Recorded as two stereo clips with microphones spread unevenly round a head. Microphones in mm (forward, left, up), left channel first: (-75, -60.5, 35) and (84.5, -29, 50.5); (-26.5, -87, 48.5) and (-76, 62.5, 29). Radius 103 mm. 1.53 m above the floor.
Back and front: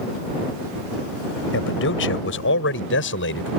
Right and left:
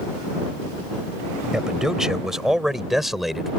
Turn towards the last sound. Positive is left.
turn(degrees=-160)